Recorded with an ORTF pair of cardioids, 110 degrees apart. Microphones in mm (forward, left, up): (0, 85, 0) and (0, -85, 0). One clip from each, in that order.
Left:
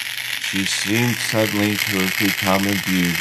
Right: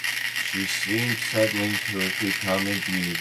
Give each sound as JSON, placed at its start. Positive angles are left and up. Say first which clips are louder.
{"t": 0.4, "sound": "a man speaking", "louder": "left 5 dB", "azimuth_deg": 65, "distance_m": 1.0}